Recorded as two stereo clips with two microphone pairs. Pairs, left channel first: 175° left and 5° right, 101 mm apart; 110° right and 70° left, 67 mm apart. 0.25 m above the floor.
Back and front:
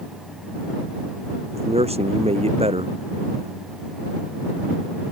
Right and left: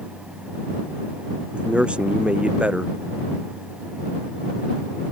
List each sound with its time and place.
1.5 s a man speaking: 5° right